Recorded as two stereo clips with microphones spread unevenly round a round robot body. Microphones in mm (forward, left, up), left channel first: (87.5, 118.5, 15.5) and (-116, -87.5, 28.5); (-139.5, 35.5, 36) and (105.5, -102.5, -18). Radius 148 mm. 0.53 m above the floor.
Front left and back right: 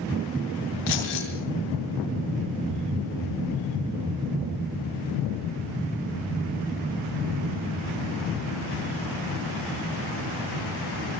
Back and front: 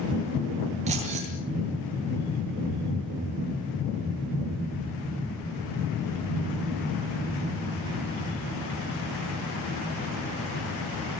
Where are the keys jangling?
40° left, 6.5 m.